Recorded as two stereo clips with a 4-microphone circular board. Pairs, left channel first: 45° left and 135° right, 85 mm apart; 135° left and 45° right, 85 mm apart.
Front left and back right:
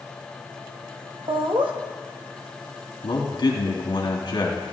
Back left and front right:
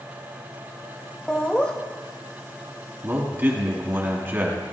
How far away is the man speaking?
About 2.5 m.